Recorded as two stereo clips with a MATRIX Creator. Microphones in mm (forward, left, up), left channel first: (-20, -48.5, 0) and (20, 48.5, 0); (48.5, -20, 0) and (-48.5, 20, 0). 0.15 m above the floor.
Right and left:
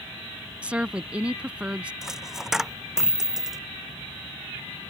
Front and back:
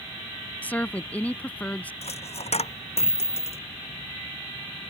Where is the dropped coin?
20° right.